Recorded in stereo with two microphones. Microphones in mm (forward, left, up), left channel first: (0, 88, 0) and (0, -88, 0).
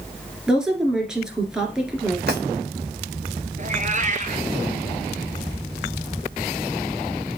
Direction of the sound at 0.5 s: 5° right (ahead or behind).